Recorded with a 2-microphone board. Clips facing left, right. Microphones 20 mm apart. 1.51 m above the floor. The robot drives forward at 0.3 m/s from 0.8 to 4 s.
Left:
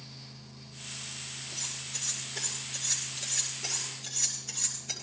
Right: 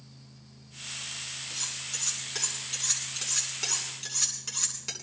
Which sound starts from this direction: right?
Cutlery clinking, at 1.5 s.